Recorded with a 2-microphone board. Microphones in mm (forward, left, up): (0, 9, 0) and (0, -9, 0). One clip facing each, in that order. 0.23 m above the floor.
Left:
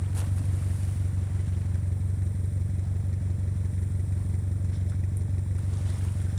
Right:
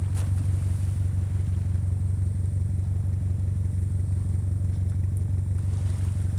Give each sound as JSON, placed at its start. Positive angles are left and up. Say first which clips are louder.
{"t": 0.0, "sound": "an engine running", "louder": "right 2 dB", "side_deg": 15, "distance_m": 0.8}